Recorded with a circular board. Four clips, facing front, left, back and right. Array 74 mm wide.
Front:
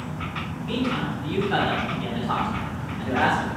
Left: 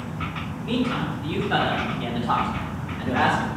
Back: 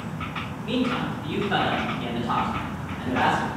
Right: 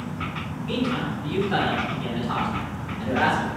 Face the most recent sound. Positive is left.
turn(degrees=90)